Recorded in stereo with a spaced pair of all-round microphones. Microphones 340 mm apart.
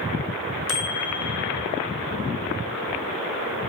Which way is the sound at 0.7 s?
35° left (ahead or behind).